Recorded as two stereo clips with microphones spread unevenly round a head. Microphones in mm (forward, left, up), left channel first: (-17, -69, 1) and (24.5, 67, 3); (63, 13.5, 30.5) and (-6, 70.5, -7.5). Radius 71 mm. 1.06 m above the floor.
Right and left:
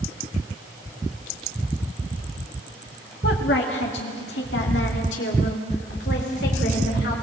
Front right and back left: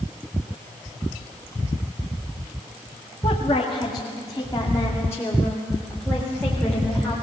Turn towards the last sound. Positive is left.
turn(degrees=-125)